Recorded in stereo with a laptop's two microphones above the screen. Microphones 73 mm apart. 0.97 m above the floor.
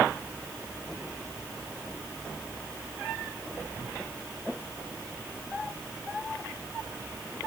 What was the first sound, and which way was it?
Only background noise.